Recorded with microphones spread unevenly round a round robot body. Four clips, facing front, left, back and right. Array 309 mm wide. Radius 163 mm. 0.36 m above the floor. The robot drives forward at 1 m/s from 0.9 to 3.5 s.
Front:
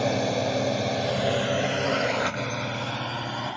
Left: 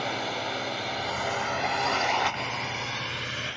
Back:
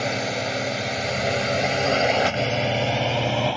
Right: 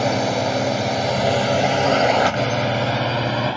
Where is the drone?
80° right; by 3.6 s 125° right.